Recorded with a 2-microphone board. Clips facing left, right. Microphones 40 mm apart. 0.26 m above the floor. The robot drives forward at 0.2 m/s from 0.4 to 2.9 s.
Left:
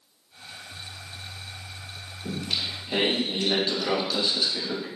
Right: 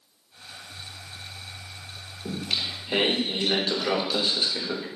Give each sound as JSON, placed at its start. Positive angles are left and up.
{"t": 2.2, "sound": "singing", "side_deg": -20, "distance_m": 0.6}